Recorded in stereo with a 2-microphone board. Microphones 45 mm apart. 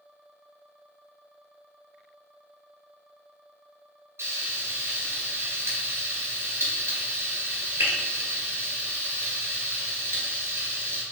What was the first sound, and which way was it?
Frying, 65° right (ahead or behind).